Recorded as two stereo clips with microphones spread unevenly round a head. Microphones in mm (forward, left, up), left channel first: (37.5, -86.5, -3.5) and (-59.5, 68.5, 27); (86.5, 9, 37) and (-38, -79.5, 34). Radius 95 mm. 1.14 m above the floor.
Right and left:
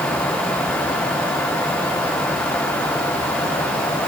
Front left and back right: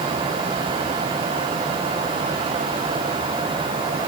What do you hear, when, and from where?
Only background noise.